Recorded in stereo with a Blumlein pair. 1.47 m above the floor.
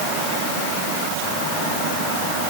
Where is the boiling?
No boiling in this recording.